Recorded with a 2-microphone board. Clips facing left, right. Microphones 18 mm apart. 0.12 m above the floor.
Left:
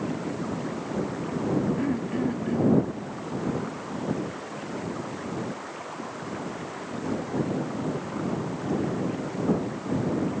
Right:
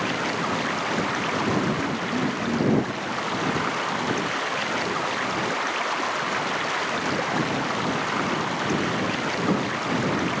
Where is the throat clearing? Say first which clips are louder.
Right 2 dB; 80° left.